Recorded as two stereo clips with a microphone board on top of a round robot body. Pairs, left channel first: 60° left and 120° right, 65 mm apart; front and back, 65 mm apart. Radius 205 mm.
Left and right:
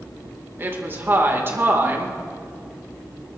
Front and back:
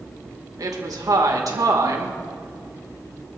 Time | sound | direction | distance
0.6 | a woman speaking | 170° right | 2.5 m